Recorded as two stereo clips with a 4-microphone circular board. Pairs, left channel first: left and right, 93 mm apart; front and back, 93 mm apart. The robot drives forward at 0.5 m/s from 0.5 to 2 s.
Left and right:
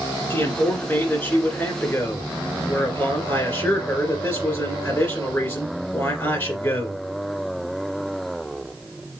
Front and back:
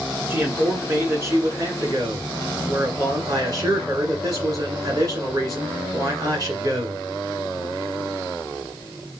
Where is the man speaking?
130° left, 1.8 m; by 7.0 s 155° left, 2 m.